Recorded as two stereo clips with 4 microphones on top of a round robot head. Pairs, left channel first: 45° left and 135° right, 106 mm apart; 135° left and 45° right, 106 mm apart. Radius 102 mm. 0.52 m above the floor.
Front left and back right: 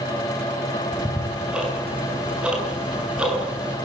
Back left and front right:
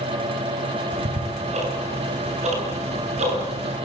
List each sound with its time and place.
0.9 s ticking: 55° right, 8.5 m